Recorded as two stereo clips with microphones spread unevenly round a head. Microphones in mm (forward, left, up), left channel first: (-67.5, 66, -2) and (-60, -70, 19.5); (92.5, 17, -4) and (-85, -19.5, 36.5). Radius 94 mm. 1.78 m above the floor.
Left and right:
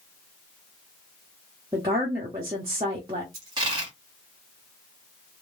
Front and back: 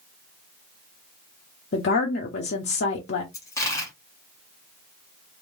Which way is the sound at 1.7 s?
25° right.